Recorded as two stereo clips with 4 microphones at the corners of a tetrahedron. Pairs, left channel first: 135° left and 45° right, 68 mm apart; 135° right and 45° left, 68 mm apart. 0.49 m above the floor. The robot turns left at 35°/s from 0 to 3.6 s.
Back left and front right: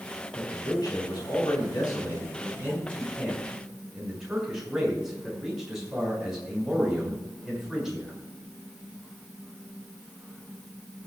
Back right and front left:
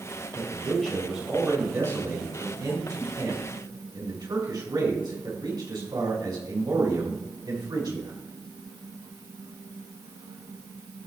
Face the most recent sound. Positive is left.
turn(degrees=40)